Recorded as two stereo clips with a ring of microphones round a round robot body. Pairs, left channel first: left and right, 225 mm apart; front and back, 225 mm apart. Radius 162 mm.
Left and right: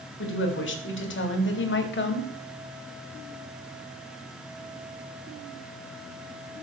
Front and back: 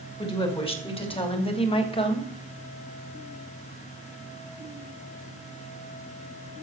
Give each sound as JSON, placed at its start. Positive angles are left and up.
{"t": 0.2, "sound": "a woman speaking", "azimuth_deg": 65, "distance_m": 3.5}